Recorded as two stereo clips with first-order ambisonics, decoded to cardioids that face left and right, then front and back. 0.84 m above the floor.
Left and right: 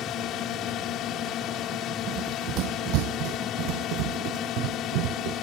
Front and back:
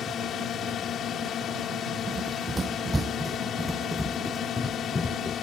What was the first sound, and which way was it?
A drone, 50° left.